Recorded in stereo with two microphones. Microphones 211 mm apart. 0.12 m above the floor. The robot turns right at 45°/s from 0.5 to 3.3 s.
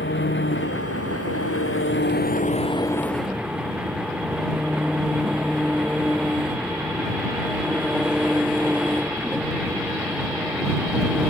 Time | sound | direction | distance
0.0 | an engine running | 60° left | ?